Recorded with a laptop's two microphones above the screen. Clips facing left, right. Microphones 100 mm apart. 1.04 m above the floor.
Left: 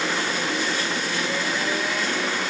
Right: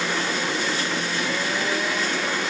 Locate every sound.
Only background noise.